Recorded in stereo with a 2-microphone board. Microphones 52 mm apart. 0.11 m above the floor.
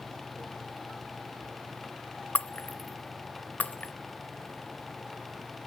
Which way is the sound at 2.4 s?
30° left (ahead or behind).